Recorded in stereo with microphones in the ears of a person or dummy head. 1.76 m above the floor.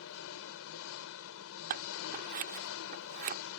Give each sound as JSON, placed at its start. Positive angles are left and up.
{"t": 0.0, "sound": "an engine running", "side_deg": 75}
{"t": 1.7, "sound": "scissors", "side_deg": -45}